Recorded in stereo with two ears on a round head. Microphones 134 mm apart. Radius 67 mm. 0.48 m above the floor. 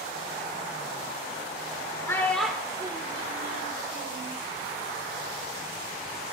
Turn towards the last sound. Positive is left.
turn(degrees=-70)  # may be behind; listen again after turning